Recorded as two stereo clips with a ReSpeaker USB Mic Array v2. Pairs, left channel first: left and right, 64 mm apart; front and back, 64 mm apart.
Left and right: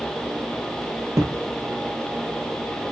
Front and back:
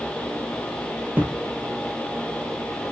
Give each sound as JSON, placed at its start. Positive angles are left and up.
{"t": 1.1, "sound": "a thud", "azimuth_deg": -120, "distance_m": 1.3}